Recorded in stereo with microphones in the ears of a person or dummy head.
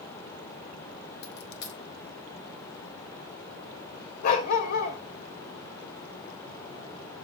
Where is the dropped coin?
65° left (ahead or behind), 1.0 m.